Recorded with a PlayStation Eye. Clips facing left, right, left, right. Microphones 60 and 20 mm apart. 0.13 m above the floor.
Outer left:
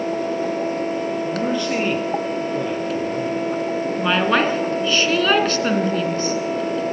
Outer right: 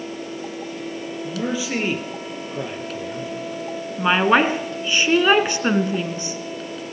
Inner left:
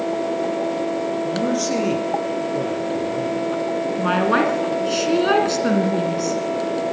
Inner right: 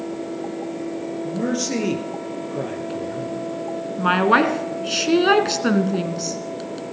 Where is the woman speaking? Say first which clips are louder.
Outer right 3 dB, inner right 3 dB; 15° right (ahead or behind), 1.7 m.